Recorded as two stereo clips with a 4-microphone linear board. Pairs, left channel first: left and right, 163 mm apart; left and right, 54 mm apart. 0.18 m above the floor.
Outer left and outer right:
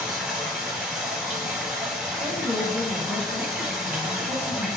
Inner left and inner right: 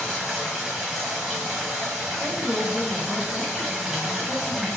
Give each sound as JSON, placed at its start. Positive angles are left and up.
{"t": 0.0, "sound": "running water", "side_deg": -5, "distance_m": 1.2}
{"t": 2.2, "sound": "a woman speaking", "side_deg": 10, "distance_m": 1.6}